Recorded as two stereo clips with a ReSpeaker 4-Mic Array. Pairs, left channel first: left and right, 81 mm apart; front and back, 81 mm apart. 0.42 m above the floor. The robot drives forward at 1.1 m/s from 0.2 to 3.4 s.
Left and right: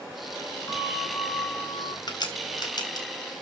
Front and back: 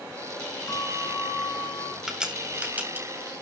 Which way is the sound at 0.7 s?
40° left.